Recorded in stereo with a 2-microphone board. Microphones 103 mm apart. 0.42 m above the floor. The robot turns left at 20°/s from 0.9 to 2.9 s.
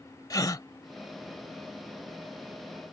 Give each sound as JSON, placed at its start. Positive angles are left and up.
{"t": 0.3, "sound": "a gasp", "side_deg": 35}